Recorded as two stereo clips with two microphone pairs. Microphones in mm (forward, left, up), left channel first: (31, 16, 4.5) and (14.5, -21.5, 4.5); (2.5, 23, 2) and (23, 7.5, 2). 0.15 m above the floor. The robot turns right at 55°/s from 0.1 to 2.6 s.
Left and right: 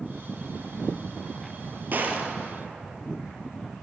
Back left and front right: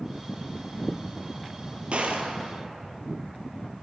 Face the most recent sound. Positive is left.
turn(degrees=-35)